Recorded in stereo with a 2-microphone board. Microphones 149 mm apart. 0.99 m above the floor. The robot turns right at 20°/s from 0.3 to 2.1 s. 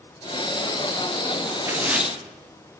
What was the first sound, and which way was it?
Tearing paper, 15° right (ahead or behind).